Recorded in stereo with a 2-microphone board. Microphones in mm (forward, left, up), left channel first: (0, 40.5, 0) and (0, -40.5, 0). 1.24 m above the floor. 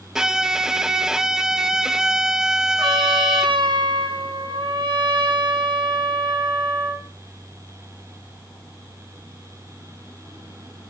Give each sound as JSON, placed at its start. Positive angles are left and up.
{"t": 0.1, "sound": "a violin", "side_deg": -5, "distance_m": 0.7}
{"t": 2.8, "sound": "a trumpet", "side_deg": -75, "distance_m": 4.5}